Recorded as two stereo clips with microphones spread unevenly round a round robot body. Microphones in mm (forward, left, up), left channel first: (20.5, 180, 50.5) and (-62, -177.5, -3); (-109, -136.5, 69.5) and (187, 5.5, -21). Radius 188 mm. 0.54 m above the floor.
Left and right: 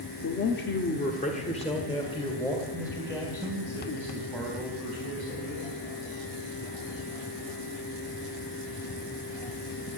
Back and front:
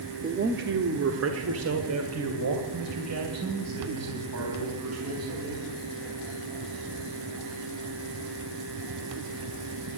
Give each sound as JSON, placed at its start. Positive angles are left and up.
{"t": 0.2, "sound": "a man speaking", "azimuth_deg": 35, "distance_m": 0.8}